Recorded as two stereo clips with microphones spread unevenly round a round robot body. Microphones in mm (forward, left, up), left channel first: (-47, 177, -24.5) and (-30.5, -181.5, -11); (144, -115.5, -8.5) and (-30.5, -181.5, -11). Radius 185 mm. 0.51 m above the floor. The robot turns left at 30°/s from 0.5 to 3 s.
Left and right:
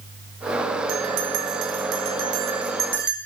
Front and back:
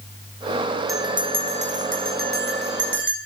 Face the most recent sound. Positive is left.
turn(degrees=-150)